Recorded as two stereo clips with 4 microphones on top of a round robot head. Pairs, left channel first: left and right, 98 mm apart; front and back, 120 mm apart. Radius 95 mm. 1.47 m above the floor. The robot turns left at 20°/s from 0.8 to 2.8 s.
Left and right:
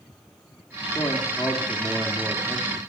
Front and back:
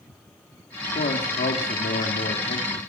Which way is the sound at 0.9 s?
20° left.